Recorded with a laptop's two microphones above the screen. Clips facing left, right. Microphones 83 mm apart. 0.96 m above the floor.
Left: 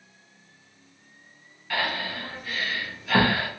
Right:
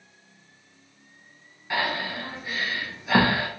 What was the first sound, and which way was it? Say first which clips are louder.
Breathing: right 1 dB; 20° right (ahead or behind).